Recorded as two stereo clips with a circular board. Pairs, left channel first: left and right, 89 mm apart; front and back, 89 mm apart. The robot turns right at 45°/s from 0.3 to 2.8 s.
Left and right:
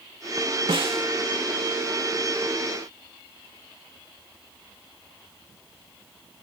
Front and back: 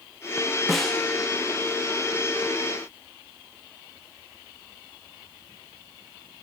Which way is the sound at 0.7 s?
90° right.